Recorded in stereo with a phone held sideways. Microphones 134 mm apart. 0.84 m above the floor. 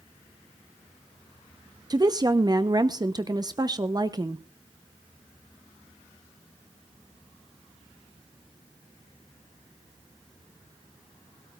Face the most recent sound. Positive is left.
turn(degrees=-30)  # may be behind; listen again after turning